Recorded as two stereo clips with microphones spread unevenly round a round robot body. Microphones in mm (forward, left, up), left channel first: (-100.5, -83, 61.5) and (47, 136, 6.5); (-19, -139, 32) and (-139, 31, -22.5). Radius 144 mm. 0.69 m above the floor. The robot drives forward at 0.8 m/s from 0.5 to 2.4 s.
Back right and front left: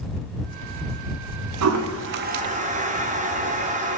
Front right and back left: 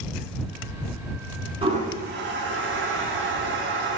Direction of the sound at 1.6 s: 60° left.